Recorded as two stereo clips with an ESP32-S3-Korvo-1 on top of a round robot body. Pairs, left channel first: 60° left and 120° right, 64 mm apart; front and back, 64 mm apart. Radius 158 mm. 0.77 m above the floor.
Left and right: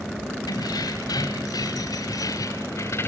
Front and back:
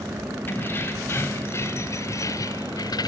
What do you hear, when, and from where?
0.5 s keys jangling: 55° left, 4.5 m; by 3.1 s 5° left, 1.5 m